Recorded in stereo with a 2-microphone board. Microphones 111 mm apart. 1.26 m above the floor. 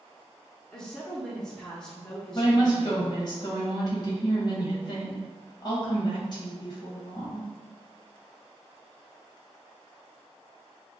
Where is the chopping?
I don't hear chopping.